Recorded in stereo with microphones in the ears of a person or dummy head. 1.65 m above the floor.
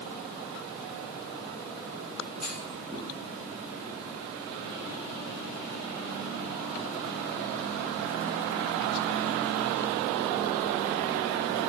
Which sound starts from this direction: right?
A clunk, at 2.4 s.